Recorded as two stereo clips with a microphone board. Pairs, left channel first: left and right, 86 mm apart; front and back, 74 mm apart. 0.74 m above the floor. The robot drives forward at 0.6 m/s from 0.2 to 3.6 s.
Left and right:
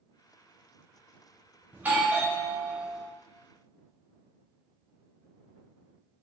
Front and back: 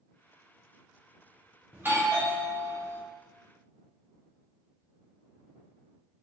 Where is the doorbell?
140° right, 1.0 m; by 3.0 s 165° right, 1.5 m.